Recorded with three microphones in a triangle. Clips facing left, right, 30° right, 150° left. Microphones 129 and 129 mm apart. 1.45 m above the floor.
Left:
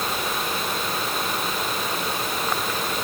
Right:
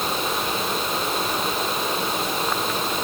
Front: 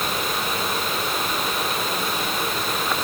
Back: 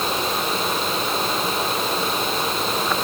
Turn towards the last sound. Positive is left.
No sound to turn to.